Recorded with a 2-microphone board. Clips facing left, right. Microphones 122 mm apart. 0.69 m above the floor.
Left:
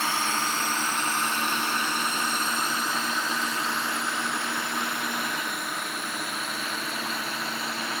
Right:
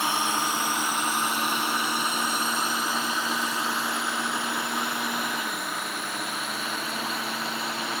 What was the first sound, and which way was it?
A drone, 15° right (ahead or behind).